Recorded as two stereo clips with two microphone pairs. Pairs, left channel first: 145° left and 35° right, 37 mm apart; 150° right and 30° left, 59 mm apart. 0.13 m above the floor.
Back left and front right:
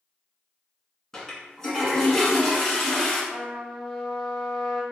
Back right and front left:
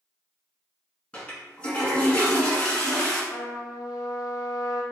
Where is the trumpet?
135° right, 0.9 m.